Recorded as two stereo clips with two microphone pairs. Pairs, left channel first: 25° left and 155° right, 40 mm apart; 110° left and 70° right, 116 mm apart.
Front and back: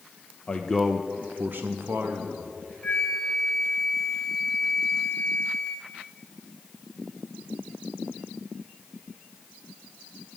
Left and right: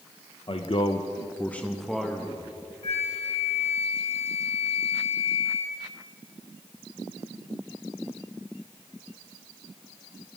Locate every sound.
0.5 s a man speaking: 80° left, 0.7 m; by 2.5 s 150° right, 1.5 m
2.8 s a flute: 80° left, 1.5 m